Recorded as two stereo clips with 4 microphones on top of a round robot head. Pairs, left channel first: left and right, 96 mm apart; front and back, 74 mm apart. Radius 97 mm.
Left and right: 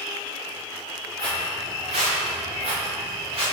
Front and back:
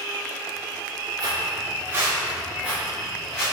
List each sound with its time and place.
1.2 s footsteps: 140° right, 2 m; by 3.4 s 70° right, 3.5 m